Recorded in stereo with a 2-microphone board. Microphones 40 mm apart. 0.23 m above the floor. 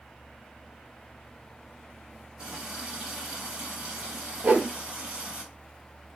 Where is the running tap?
35° right (ahead or behind), 1.5 m.